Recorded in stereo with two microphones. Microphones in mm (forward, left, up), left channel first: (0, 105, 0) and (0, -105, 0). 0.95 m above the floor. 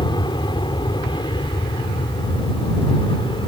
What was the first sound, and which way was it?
An aircraft, 20° left (ahead or behind).